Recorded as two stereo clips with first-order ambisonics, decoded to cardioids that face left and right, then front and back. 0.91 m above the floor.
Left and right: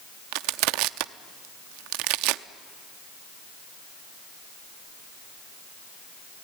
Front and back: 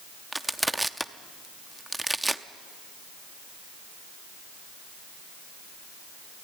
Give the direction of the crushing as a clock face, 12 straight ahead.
3 o'clock.